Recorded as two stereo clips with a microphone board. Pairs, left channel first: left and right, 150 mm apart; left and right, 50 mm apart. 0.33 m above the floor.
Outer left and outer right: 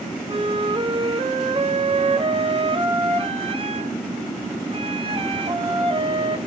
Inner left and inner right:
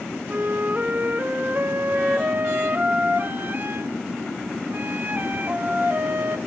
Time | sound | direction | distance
0.3 | a flute | 40° right (ahead or behind) | 0.9 m